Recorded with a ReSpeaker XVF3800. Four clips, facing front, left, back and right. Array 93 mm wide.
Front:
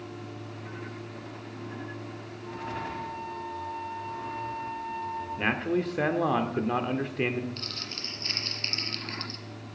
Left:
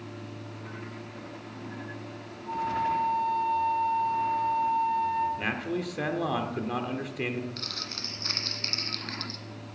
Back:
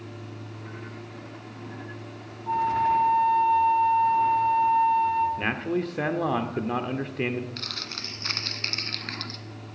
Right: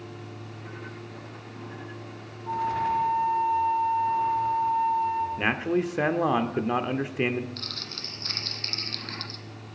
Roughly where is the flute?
Behind.